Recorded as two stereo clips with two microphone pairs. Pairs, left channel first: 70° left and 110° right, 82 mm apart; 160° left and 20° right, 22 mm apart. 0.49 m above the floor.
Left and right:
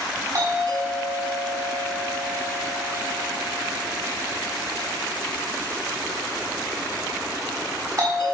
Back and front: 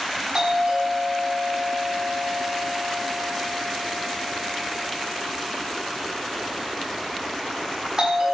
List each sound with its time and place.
0.3 s a doorbell: 70° right, 5 m